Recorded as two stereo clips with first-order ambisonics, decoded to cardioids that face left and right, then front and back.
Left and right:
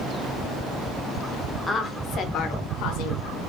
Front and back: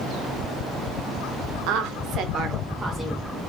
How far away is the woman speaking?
About 0.7 m.